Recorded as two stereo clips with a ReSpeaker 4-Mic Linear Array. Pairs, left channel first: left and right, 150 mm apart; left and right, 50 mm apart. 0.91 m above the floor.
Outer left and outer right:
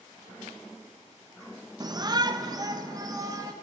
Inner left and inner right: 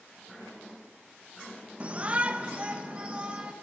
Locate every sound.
1.8 s a shout: 30° right (ahead or behind), 0.9 m; by 3.5 s 25° right (ahead or behind), 1.6 m